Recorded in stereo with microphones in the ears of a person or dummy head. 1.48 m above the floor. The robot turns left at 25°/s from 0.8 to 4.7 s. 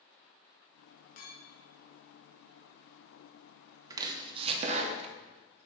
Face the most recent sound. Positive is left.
turn(degrees=-40)  # may be behind; listen again after turning